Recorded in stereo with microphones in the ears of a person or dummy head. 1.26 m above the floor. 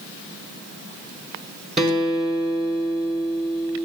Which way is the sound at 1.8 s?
5° right (ahead or behind).